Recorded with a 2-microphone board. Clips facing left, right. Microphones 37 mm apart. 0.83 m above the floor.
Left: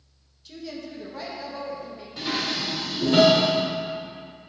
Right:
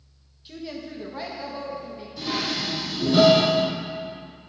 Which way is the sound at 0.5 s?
20° right (ahead or behind).